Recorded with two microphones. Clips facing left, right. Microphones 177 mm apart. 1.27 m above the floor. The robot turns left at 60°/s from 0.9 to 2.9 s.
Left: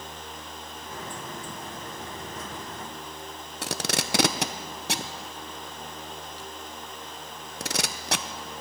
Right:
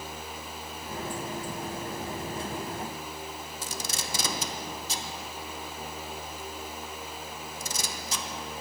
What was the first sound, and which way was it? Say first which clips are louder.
Tape being pulled: left 10 dB; 70° left (ahead or behind).